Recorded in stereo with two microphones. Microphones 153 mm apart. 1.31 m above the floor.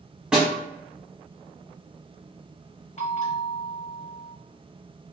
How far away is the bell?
About 0.8 m.